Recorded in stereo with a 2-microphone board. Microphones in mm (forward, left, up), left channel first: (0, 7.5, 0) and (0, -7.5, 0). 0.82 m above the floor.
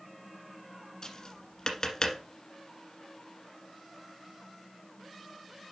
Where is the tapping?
40° left (ahead or behind), 1.5 m.